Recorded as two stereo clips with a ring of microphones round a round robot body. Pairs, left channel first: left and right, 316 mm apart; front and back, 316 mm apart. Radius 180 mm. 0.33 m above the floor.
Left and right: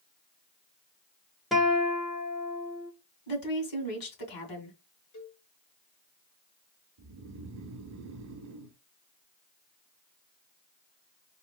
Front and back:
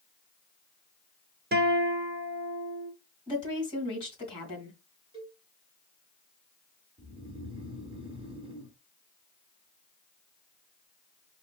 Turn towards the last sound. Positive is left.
turn(degrees=-110)